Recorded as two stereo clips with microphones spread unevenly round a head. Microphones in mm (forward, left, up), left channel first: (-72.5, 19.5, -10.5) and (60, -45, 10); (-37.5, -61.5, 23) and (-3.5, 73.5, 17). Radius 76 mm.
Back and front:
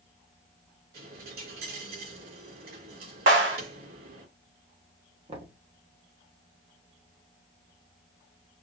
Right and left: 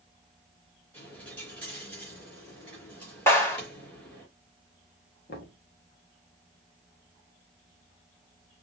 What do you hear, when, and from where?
0.9 s a dropped coin: 25° right, 3.5 m
3.3 s a clap: 30° right, 3.5 m
5.3 s knocking: 80° right, 1.4 m